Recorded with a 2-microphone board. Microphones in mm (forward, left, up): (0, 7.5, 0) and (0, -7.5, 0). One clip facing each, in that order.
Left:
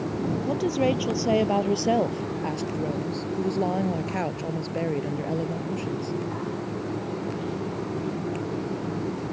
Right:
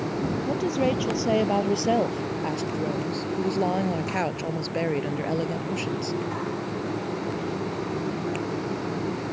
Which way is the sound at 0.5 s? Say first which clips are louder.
Left 1 dB; 10° left (ahead or behind).